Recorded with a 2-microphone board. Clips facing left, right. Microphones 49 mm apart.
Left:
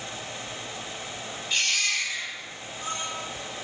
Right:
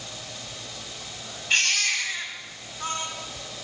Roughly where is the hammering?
I don't hear hammering.